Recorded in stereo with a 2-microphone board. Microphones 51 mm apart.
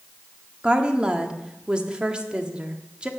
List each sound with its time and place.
0.6 s a woman speaking: 20° right (ahead or behind), 1.4 m